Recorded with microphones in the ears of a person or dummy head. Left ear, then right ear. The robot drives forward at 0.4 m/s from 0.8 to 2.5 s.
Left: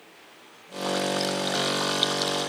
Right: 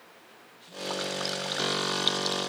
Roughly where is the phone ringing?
No phone ringing in this recording.